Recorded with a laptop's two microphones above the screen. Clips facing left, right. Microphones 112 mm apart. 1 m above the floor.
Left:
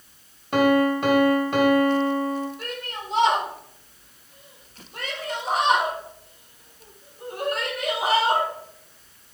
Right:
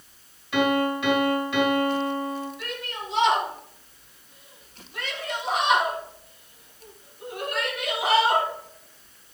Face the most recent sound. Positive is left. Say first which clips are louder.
# left 1 dB
turn(degrees=50)  # may be behind; listen again after turning